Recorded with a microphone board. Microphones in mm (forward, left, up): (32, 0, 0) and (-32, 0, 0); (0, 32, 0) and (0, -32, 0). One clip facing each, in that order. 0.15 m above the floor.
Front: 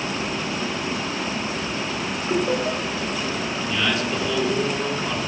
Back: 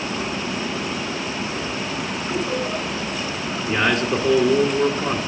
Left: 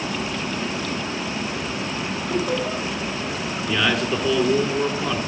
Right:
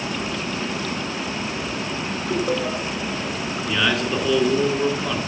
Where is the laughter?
45° right, 5 m.